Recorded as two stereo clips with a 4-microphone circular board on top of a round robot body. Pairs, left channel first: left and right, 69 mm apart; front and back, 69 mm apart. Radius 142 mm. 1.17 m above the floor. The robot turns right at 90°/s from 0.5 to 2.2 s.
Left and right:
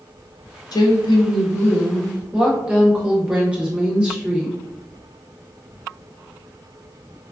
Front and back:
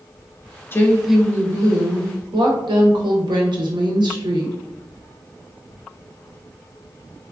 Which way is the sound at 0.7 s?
60° left.